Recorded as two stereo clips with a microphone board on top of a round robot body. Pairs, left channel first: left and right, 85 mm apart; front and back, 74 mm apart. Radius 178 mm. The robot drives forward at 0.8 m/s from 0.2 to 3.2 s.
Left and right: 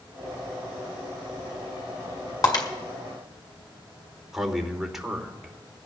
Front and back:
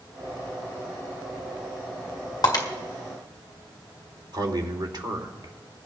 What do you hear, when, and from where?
2.4 s breaking glass: 40° left, 1.8 m
4.3 s a man speaking: 175° right, 2.5 m